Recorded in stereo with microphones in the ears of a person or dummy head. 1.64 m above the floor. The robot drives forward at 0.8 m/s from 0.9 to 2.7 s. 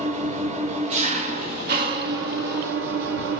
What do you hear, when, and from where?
0.0 s an engine running: 40° right (ahead or behind), 2 m; by 3.4 s 75° right (ahead or behind), 1.3 m